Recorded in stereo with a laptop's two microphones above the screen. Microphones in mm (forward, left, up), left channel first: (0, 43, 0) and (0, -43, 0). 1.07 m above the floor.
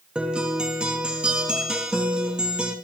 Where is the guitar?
10° right (ahead or behind), 4 m.